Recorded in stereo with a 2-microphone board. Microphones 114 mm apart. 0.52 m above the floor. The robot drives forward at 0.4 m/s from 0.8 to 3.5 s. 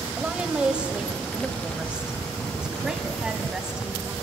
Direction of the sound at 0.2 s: 10° right (ahead or behind).